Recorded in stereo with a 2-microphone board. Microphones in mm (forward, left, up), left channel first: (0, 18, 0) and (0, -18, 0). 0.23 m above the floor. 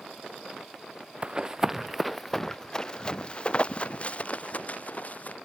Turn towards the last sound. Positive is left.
turn(degrees=45)  # may be behind; listen again after turning